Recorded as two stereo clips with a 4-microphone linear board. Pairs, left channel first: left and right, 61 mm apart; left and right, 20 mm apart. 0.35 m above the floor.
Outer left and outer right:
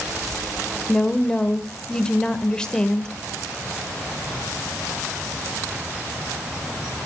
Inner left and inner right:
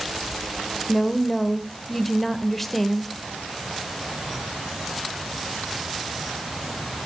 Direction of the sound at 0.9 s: 10° left (ahead or behind).